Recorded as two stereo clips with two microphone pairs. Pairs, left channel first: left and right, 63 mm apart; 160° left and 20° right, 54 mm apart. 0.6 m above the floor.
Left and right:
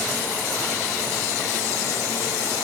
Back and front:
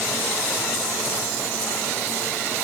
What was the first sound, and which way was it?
Only background noise.